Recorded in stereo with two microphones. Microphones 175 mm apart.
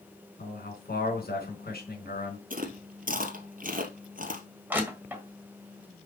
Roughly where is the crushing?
Centre.